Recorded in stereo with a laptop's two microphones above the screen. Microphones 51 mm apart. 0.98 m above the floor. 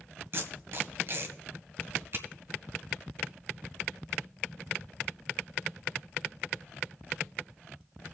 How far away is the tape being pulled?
About 1.5 m.